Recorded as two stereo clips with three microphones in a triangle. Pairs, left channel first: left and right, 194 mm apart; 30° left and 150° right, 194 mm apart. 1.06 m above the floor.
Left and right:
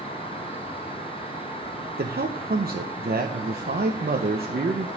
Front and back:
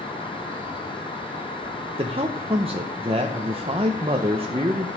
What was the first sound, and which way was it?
An insect, 20° right.